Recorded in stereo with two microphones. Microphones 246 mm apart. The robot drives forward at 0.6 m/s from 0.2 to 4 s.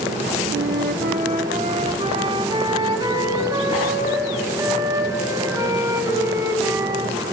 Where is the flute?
50° right (ahead or behind), 0.8 m; by 7.2 s 15° right (ahead or behind), 2.5 m.